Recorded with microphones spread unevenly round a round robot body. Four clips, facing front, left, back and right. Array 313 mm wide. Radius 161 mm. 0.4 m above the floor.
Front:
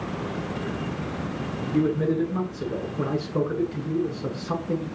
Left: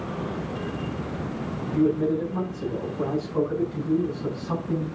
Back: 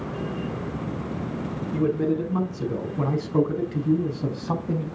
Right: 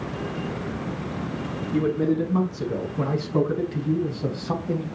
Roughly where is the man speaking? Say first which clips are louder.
Even, front 1 dB; behind right.